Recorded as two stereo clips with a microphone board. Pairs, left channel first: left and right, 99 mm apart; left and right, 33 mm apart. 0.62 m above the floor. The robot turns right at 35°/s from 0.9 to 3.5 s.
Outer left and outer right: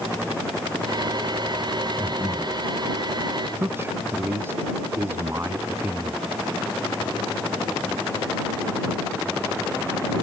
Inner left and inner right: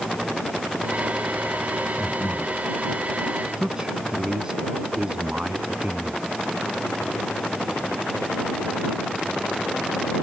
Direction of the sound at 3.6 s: 20° right (ahead or behind).